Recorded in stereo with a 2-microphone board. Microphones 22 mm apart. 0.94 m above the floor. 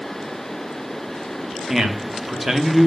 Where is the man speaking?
20° right (ahead or behind), 0.8 m.